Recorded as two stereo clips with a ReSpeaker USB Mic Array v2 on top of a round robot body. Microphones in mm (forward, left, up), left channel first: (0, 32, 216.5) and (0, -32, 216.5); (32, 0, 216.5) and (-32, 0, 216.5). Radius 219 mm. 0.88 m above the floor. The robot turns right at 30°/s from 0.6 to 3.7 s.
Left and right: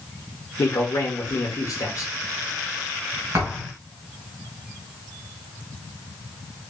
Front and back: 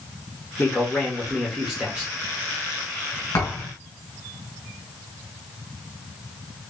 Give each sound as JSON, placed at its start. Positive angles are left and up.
{"t": 0.6, "sound": "a man speaking", "azimuth_deg": 65, "distance_m": 1.4}
{"t": 3.3, "sound": "a thud", "azimuth_deg": -40, "distance_m": 1.6}